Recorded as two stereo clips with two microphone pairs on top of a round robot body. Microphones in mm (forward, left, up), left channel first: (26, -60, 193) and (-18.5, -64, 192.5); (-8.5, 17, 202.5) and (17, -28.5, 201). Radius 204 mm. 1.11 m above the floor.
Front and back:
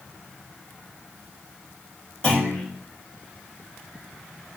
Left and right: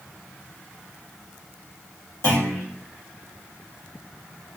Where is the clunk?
85° left, 1.8 m.